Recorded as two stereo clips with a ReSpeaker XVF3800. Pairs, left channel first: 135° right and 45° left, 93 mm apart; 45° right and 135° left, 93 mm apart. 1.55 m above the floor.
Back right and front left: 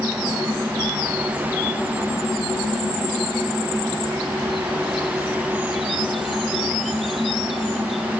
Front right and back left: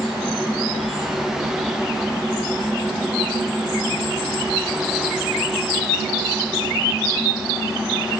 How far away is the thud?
I don't hear a thud.